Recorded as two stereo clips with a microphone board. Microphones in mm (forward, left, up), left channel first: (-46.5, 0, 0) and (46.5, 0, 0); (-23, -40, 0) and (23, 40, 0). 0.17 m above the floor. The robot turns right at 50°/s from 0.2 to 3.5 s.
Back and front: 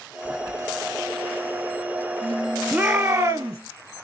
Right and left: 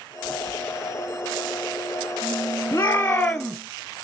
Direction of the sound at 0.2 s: 70° right.